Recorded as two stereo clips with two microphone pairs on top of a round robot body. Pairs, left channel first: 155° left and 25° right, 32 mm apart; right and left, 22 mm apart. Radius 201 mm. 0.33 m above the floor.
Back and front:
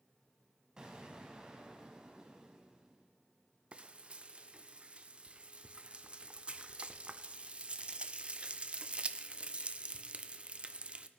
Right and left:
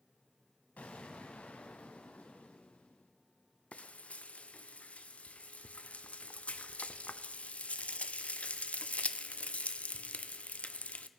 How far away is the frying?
About 0.6 m.